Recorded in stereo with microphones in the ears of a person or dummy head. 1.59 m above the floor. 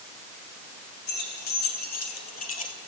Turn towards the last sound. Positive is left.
turn(degrees=35)  # may be behind; listen again after turning